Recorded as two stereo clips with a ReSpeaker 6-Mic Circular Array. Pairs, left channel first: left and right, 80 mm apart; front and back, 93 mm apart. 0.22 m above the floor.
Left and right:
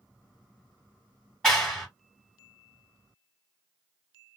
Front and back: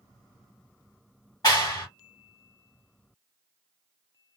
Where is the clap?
10° left, 1.8 m.